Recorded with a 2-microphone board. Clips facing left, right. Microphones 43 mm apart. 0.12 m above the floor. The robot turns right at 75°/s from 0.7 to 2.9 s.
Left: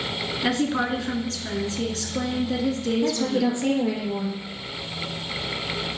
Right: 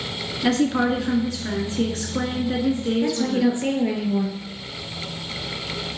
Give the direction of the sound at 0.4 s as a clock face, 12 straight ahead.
7 o'clock.